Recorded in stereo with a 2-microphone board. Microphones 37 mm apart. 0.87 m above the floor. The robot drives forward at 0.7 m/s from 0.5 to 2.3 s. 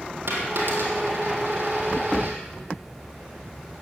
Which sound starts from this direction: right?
A dropped coin, at 0.3 s.